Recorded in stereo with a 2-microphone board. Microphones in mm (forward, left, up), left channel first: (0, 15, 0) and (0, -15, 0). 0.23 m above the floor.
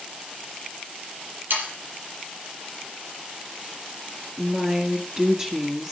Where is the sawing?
80° right, 6.5 m.